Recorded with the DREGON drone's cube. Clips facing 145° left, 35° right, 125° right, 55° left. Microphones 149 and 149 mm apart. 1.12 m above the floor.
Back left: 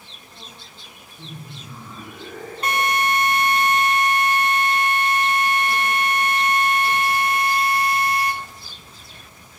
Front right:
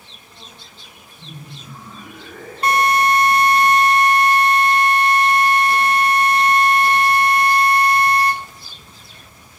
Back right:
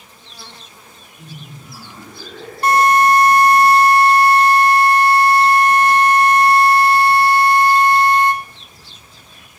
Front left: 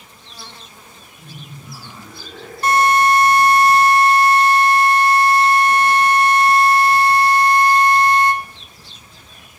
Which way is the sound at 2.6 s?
90° right.